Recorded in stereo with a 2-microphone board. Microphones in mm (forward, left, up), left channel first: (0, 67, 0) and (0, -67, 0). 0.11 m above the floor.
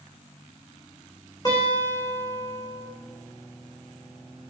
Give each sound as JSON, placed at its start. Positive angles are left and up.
{"t": 1.4, "sound": "a guitar", "side_deg": 30, "distance_m": 2.5}